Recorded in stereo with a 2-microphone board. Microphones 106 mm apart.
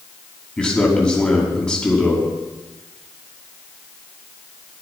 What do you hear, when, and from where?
0.6 s a man speaking: 5° left (ahead or behind), 5 m